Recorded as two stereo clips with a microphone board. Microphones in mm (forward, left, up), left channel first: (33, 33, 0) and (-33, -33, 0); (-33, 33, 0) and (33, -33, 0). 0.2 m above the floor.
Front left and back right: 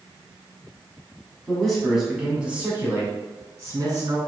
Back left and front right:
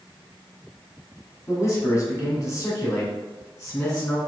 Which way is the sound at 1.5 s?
120° left.